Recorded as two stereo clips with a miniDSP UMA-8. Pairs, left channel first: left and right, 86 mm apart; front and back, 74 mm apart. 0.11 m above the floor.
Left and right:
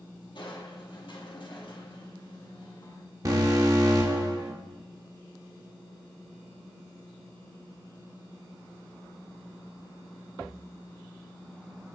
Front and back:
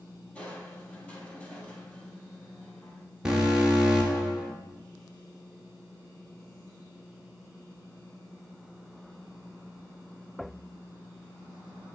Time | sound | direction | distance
0.3 | crushing | 70° left | 1.2 m
3.2 | an alarm | 105° right | 1.3 m